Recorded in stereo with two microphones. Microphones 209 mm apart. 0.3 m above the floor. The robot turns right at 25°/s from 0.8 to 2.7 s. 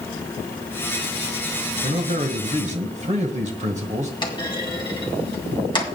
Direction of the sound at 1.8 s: 40° right (ahead or behind).